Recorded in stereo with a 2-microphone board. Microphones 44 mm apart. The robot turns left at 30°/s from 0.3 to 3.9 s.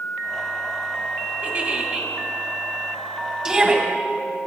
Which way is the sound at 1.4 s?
35° right (ahead or behind).